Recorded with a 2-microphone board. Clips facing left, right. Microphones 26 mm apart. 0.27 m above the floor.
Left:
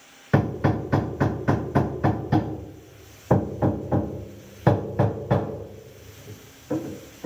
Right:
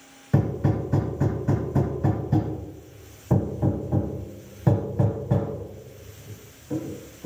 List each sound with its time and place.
0.3 s hammering: 55° left (ahead or behind), 0.6 m